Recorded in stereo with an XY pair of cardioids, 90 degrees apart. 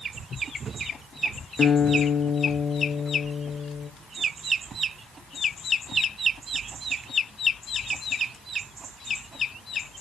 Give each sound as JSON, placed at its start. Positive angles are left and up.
{"t": 1.6, "sound": "a guitar", "azimuth_deg": 45, "distance_m": 3.0}